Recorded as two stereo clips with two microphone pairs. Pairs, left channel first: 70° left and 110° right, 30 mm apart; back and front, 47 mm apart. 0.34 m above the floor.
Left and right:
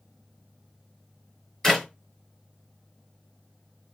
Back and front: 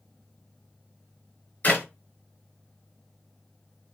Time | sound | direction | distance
1.6 | a clap | 140° left | 1.1 m